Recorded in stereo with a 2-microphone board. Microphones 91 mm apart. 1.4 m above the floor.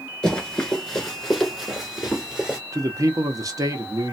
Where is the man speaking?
40° right (ahead or behind), 0.7 m.